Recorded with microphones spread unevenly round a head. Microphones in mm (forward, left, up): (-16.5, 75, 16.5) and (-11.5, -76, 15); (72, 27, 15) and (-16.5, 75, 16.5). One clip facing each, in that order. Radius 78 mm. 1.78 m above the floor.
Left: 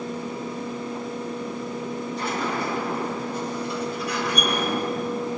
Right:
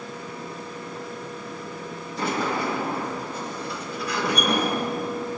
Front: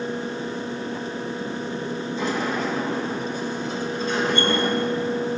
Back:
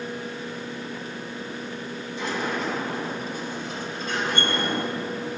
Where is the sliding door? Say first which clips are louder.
Right 4 dB, front 2 dB; 60° right, 2.0 m.